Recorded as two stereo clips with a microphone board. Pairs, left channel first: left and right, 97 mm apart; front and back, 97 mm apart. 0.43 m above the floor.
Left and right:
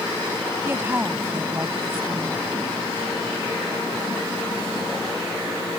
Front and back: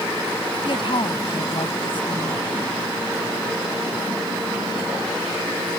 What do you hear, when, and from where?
0.7 s a woman speaking: 25° right